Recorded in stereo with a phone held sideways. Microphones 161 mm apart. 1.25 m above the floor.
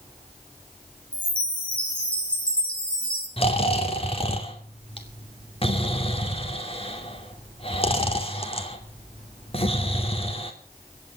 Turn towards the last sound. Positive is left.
turn(degrees=35)  # may be behind; listen again after turning